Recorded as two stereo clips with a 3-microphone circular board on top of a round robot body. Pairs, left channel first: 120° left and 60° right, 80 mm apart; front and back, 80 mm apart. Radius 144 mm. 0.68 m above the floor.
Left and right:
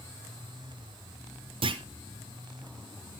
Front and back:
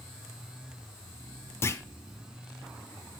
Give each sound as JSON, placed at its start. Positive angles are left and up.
{"t": 1.6, "sound": "a clunk", "azimuth_deg": -60, "distance_m": 0.5}